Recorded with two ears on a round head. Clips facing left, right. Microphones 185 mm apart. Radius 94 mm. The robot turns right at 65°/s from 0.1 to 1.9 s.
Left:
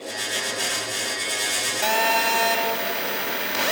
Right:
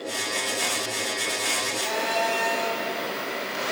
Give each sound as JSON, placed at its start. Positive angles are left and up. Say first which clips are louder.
{"t": 1.8, "sound": "a phone buzzing", "louder": "left 3 dB", "side_deg": 80, "distance_m": 4.5}